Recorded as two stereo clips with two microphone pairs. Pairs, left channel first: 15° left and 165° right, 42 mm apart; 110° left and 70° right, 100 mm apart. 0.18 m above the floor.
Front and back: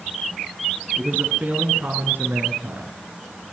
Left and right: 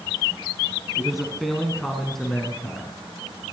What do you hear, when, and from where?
1.0 s a man speaking: 150° right, 1.9 m; by 2.9 s 160° right, 3.5 m